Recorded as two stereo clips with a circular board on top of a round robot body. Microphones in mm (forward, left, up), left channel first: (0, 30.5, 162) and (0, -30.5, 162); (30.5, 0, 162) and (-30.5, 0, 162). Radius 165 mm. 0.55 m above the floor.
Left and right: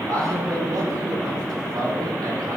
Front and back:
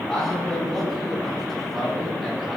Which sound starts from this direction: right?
A man speaking, at 0.1 s.